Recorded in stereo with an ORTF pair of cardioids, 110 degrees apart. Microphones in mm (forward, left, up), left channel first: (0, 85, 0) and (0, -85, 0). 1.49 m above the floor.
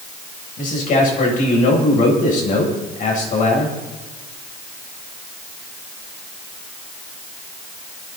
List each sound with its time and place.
0.6 s a man speaking: 50° left, 8.5 m